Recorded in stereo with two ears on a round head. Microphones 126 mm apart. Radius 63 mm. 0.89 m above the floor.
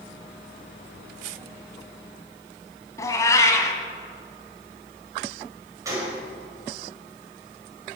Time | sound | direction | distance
3.0 | a cat meowing | 20° left (ahead or behind) | 1.7 m
5.8 | a gunshot | 25° right (ahead or behind) | 5.5 m